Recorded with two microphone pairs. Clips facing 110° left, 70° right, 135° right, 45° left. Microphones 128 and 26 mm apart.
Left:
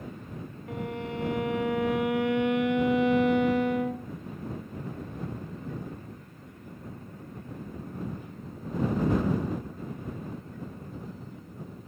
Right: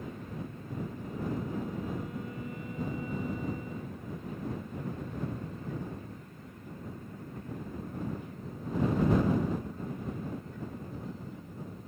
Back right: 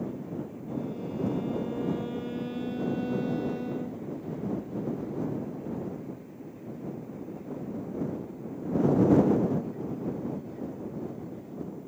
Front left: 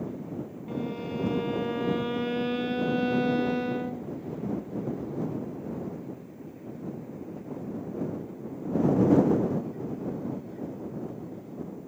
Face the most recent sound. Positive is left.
turn(degrees=100)